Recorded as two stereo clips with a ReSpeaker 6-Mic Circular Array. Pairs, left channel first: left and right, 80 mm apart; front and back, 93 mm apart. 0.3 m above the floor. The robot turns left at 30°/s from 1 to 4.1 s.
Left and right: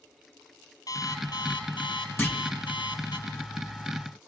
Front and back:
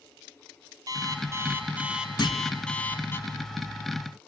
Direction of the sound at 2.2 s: 35° left.